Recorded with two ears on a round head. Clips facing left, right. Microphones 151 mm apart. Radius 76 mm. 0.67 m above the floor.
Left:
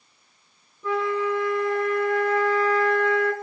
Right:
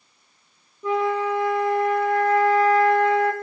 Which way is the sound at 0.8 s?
15° right (ahead or behind).